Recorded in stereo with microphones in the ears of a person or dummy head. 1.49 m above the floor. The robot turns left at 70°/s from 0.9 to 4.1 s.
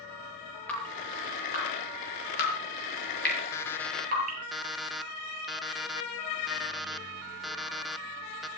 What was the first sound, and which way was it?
Dripping, 5° left (ahead or behind).